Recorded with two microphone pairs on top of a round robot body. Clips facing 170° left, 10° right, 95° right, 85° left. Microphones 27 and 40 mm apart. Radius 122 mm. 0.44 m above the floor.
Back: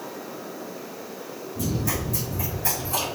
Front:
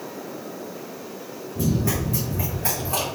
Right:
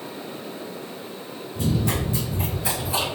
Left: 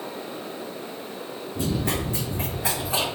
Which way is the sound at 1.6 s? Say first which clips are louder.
Front 4 dB, right 2 dB; 35° left.